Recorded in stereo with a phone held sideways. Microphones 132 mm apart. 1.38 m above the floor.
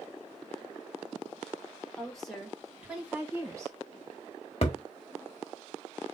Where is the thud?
50° left (ahead or behind), 1.2 m.